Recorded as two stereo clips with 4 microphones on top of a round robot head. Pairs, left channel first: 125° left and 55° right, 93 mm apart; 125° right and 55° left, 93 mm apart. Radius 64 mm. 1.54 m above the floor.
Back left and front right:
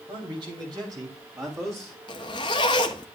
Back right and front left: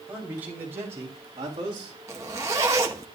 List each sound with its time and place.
0.1 s a man speaking: 25° right, 3.5 m; by 2.0 s 15° left, 3.5 m
2.1 s a zipper: 105° left, 1.0 m